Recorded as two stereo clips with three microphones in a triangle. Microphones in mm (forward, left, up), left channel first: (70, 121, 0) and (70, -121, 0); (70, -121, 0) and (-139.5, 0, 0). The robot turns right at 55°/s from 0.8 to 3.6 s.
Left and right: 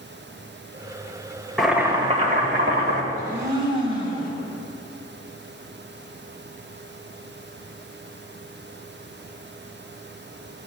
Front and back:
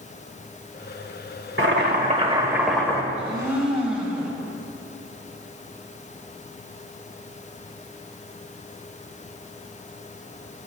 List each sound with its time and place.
1.6 s boiling: straight behind, 2 m; by 3.0 s 105° right, 2 m
3.1 s a blender: 150° right, 4 m; by 4.3 s 125° right, 4 m